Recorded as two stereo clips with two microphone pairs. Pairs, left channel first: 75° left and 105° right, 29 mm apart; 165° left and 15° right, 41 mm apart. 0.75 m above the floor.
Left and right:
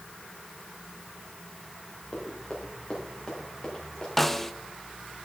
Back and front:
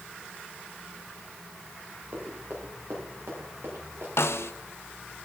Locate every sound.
2.1 s running footsteps: 15° left, 5.5 m; by 4.1 s straight ahead, 7.5 m
4.2 s a snare drum: 155° left, 0.6 m